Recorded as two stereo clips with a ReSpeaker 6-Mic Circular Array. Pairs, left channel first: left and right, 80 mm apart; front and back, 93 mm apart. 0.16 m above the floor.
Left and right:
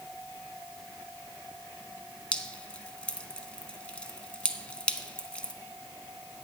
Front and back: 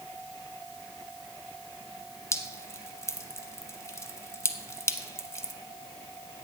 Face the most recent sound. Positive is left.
turn(degrees=25)